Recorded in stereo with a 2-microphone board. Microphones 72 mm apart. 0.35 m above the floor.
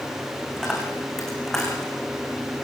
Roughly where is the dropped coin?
Centre.